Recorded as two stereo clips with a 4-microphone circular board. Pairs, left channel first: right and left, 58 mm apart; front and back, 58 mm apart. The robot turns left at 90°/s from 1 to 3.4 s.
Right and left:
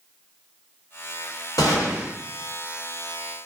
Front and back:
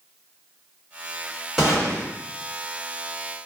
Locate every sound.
1.6 s a gunshot: 95° right, 1.1 m; by 2.1 s 140° right, 1.1 m